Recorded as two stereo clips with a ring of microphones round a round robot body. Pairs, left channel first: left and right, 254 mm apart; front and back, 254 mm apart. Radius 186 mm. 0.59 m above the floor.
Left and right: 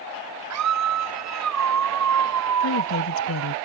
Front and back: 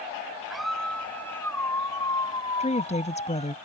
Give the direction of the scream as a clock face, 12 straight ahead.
3 o'clock.